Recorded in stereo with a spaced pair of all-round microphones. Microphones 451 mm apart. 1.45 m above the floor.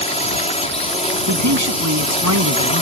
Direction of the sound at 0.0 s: 15° left (ahead or behind).